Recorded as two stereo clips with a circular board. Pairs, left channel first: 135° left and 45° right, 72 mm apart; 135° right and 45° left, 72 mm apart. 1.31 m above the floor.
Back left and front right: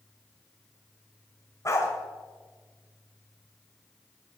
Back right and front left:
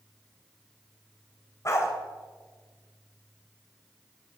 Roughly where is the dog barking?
Behind.